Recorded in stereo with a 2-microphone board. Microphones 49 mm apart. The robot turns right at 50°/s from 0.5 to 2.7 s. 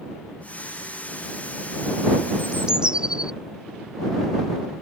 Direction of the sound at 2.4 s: 5° right (ahead or behind).